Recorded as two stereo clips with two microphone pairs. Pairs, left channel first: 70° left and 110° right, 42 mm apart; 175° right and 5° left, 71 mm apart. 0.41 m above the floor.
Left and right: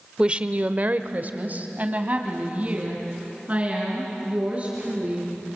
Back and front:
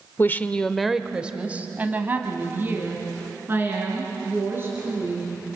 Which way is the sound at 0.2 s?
160° right.